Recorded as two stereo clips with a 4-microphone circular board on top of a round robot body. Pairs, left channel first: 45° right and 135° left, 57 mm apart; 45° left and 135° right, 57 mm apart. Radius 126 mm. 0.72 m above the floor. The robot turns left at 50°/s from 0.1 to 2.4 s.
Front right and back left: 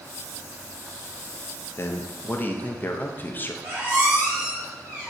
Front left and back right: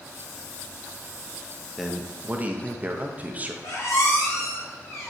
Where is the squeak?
75° left, 0.9 m.